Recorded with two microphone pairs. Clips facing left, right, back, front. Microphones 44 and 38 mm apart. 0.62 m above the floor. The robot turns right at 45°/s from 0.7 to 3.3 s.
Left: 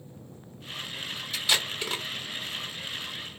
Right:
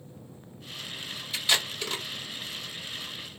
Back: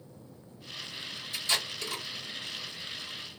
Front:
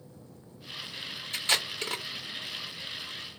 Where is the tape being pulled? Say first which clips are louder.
Even, front 3 dB; 5° right, 1.2 m; by 2.0 s 25° left, 1.2 m.